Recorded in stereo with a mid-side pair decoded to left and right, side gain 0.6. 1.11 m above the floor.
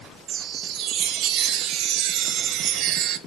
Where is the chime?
65° right, 0.6 m.